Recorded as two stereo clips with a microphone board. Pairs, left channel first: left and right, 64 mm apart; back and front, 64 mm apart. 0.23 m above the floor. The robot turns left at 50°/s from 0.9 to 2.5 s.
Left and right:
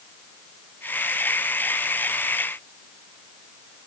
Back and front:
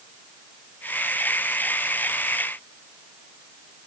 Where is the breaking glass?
No breaking glass in this recording.